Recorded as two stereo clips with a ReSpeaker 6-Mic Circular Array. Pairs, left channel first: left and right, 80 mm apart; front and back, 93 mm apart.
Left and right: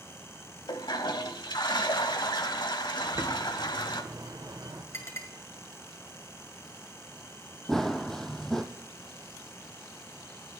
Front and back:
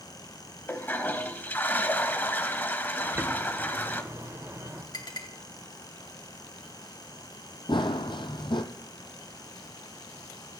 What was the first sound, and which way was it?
A toilet flushing, 70° left.